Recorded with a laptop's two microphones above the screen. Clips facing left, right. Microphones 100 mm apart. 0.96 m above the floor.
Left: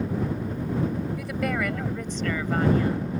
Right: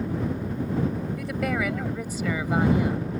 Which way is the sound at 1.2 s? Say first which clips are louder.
Right 2 dB; centre (ahead or behind).